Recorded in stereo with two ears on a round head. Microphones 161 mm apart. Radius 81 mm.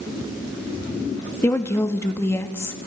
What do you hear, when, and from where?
1.4 s a woman speaking: 15° left (ahead or behind), 0.8 m